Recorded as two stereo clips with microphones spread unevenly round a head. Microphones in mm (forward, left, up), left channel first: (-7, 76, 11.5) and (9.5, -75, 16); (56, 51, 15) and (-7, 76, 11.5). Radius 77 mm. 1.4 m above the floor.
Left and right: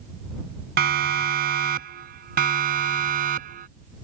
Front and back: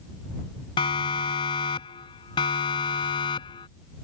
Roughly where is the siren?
Ahead right.